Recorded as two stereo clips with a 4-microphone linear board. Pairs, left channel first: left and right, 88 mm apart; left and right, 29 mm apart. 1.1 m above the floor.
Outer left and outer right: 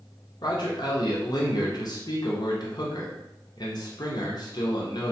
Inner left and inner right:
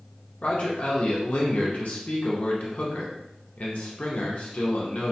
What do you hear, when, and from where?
0.4 s a man speaking: 55° left (ahead or behind), 0.6 m